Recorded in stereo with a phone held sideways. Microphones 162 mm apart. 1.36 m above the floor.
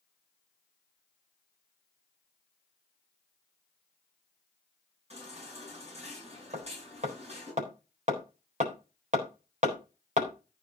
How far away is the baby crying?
About 9.5 m.